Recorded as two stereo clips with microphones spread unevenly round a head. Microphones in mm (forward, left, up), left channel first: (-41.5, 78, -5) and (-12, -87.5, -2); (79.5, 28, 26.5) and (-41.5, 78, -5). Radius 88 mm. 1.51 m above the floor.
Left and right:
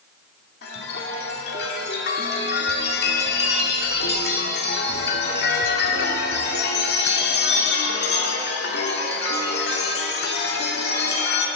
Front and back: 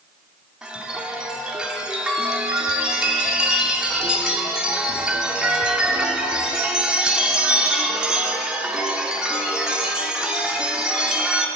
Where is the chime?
70° left, 2.5 m.